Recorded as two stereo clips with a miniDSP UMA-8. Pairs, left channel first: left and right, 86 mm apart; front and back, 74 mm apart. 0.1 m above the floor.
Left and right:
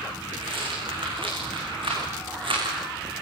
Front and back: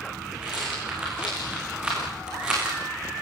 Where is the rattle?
100° right, 9.5 m.